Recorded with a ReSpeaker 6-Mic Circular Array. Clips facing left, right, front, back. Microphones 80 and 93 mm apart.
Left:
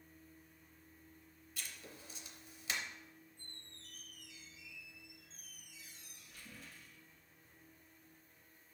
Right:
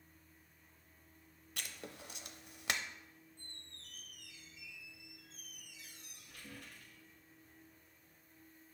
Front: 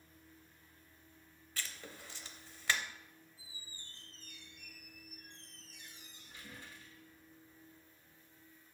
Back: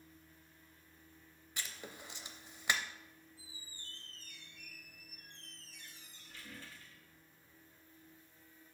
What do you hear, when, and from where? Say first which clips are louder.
1.6 s writing: right 4 dB, even; 110° right, 0.6 m
3.4 s a squeak: even, even; 70° right, 0.8 m